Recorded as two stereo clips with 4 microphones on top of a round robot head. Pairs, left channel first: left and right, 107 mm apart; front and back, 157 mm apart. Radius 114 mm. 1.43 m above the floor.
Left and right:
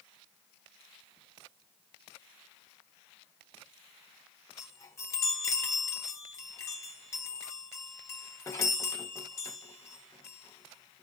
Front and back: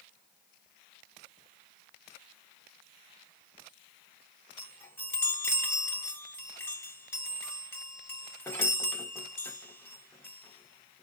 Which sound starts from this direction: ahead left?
A chime, at 4.6 s.